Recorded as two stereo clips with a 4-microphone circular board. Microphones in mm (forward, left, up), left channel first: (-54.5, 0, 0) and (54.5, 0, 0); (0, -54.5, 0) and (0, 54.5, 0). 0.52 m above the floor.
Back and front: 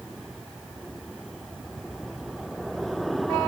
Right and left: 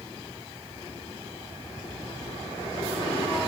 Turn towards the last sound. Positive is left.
No sound to turn to.